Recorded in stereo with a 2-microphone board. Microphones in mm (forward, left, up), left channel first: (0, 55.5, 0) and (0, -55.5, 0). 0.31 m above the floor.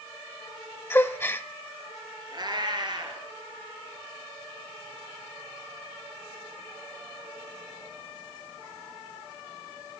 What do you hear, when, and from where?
0.9 s a gasp: 20° left (ahead or behind), 0.6 m
2.3 s a cat meowing: 40° right (ahead or behind), 2.5 m